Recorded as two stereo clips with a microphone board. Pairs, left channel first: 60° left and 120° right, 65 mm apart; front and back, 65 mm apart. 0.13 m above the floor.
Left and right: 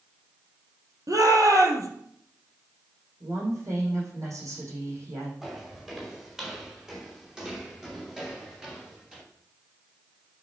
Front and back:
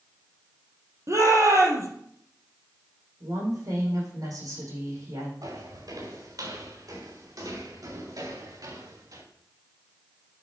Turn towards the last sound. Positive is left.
turn(degrees=160)